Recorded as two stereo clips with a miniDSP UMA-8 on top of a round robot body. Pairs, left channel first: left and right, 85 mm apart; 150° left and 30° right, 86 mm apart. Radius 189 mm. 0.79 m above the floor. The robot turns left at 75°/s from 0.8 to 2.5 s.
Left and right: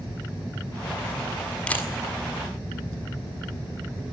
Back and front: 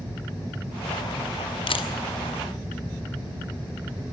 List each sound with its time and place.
1.7 s a camera shutter: 165° left, 1.8 m; by 1.9 s 150° left, 1.8 m